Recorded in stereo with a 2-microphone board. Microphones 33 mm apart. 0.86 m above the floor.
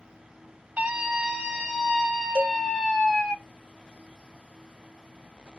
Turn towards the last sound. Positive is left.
turn(degrees=30)  # may be behind; listen again after turning